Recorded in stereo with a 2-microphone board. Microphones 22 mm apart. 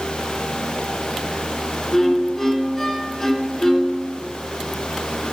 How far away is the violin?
About 0.7 m.